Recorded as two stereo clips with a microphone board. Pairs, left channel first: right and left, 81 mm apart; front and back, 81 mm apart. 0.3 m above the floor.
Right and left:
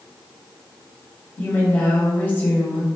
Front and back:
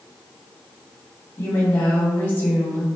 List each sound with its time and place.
1.4 s a woman speaking: 40° right, 1.1 m